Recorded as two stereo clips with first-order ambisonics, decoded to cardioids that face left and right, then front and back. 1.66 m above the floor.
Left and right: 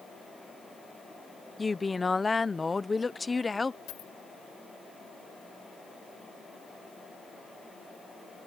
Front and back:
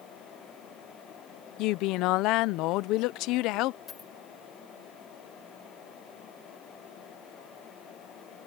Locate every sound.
1.6 s a woman speaking: 15° left
3.9 s a dropped coin: 70° left